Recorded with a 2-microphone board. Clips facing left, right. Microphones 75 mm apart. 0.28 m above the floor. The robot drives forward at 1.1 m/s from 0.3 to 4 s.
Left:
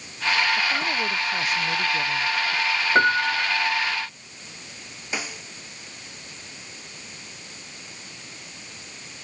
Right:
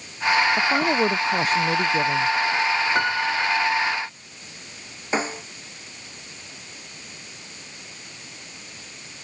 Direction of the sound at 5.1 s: 30° right (ahead or behind).